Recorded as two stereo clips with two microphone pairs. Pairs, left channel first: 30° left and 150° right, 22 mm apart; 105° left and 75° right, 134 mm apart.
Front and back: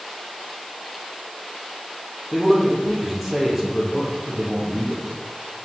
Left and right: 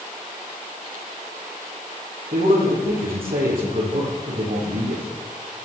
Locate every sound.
2.3 s a man speaking: 70° right, 6 m